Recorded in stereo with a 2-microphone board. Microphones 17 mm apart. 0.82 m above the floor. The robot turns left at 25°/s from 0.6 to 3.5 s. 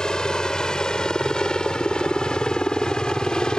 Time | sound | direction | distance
0.0 | a helicopter | 50° left (ahead or behind) | ?